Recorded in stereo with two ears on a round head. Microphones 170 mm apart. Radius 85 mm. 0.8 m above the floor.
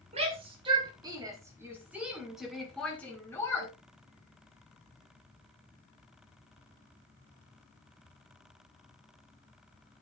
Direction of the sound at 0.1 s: 35° right (ahead or behind).